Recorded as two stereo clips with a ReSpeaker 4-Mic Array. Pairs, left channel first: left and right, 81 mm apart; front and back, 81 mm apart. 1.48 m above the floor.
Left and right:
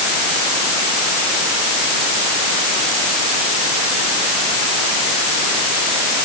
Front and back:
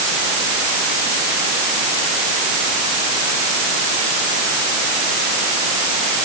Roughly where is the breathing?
I don't hear breathing.